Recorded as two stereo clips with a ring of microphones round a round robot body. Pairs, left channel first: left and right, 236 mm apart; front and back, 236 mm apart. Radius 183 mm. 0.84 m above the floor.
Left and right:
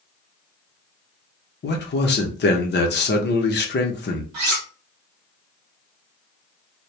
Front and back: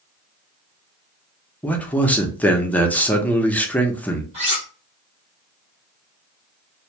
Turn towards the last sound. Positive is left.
turn(degrees=-110)